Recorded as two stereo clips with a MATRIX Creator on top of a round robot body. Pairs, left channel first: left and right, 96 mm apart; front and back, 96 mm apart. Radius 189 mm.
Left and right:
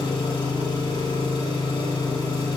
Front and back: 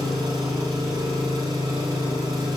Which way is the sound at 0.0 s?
125° left.